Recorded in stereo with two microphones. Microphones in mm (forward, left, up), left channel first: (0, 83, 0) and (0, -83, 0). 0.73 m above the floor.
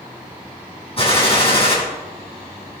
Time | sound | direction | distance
1.0 | a gunshot | 35° left (ahead or behind) | 5.5 m